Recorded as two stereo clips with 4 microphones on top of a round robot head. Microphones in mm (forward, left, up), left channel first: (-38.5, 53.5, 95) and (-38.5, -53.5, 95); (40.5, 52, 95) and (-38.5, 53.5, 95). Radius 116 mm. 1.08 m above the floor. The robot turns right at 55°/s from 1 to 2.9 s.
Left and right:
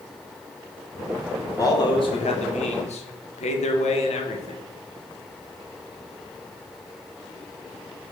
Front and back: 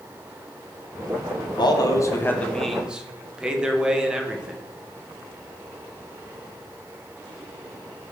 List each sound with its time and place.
1.6 s a man speaking: 25° left, 1.1 m; by 4.6 s 100° left, 1.1 m